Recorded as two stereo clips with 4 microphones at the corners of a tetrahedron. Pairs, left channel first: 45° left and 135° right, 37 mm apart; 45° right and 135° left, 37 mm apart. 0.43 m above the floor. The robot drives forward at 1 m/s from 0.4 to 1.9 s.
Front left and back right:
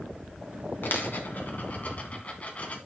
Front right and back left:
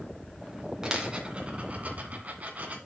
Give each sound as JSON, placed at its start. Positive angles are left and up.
{"t": 0.8, "sound": "a dropped coin", "azimuth_deg": 60, "distance_m": 2.0}